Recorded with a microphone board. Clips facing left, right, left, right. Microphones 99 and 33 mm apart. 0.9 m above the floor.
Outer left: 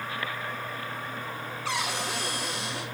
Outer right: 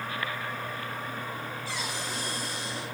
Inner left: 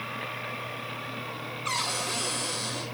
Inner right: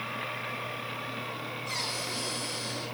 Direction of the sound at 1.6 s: 80° left.